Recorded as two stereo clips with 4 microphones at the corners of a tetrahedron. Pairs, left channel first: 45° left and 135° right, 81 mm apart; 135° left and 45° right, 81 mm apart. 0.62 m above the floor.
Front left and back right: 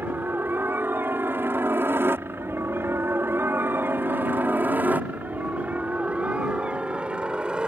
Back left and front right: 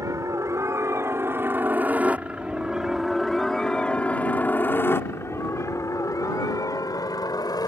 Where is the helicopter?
75° right; by 7.7 s 150° left.